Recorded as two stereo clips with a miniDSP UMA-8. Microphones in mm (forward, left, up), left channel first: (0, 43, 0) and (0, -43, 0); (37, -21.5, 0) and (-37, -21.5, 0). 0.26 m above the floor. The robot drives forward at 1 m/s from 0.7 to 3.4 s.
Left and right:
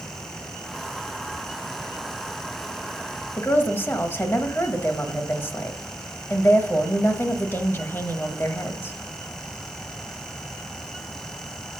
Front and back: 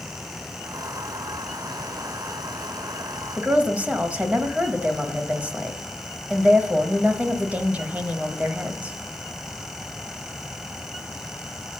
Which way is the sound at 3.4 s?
125° left.